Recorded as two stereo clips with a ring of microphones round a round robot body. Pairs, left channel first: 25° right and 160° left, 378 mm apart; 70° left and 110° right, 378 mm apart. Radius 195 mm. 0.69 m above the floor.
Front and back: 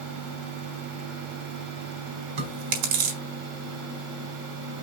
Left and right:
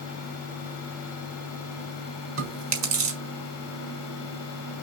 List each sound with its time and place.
2.4 s chewing: 170° right, 4.5 m